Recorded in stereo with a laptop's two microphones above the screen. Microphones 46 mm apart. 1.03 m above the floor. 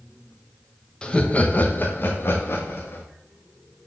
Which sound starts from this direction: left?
Laughter, at 1.0 s.